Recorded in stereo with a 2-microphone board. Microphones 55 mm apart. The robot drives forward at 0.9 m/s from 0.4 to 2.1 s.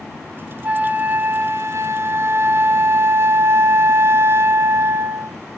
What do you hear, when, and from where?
0.6 s a flute: 25° right (ahead or behind), 1.2 m; by 5.3 s 50° right (ahead or behind), 0.7 m